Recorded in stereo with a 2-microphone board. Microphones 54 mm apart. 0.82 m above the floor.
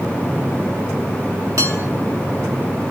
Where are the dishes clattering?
70° right (ahead or behind), 3 m.